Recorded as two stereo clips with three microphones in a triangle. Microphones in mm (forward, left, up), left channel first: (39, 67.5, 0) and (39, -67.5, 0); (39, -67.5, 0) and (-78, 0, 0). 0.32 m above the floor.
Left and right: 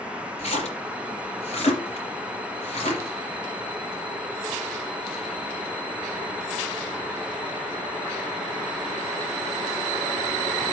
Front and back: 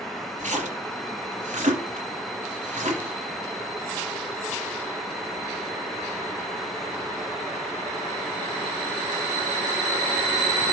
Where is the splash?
130° left, 3.5 m.